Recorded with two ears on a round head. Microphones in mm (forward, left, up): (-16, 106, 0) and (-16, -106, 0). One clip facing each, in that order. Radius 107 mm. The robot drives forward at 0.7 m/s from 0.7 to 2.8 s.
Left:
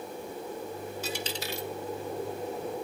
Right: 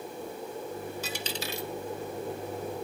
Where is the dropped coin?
65° right (ahead or behind), 2 m; by 1.7 s 70° right (ahead or behind), 2 m.